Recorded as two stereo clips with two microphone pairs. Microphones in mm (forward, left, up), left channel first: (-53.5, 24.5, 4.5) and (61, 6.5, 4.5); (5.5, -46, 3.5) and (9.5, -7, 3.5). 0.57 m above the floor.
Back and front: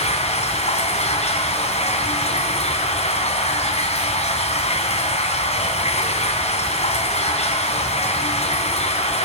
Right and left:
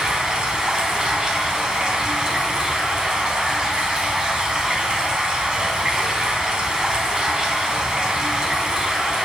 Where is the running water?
155° left, 4 m.